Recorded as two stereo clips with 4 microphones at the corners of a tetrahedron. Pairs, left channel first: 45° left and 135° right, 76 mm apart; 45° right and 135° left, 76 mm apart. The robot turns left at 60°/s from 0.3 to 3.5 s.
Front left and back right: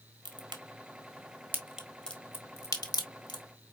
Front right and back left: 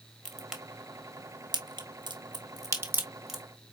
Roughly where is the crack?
Behind right.